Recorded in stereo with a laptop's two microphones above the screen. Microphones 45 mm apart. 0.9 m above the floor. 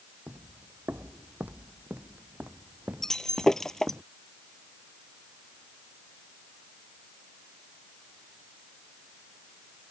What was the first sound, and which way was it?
Footsteps, 50° right (ahead or behind).